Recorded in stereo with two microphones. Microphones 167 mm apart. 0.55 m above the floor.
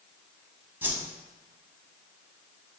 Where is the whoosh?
10° right (ahead or behind), 0.7 m.